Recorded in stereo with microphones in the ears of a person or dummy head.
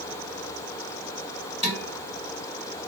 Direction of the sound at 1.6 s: 30° right (ahead or behind).